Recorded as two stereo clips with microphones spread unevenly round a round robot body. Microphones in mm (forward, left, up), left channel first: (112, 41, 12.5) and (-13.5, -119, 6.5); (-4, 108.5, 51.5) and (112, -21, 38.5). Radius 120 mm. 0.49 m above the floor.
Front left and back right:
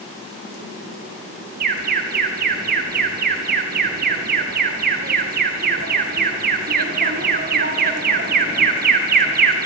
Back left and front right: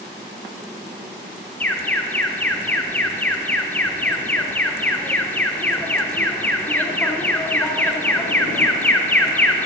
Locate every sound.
1.6 s an alarm: 145° right, 1.0 m